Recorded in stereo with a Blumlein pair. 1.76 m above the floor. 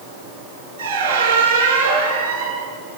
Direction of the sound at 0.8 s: 65° right.